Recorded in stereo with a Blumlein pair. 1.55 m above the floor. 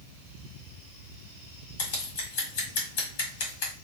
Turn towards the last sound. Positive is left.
turn(degrees=50)